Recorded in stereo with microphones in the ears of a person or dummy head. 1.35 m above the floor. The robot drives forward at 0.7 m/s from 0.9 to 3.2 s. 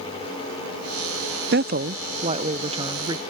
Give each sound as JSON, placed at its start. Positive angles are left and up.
{"t": 1.5, "sound": "a woman speaking", "side_deg": -50}